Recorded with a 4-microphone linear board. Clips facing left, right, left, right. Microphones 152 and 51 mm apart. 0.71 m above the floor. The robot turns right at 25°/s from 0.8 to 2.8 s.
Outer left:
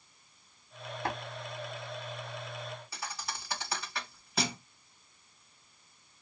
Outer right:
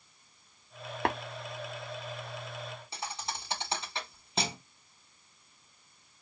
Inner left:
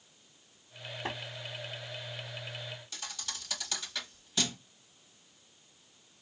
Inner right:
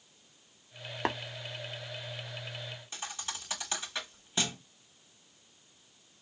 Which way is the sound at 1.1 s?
70° right (ahead or behind).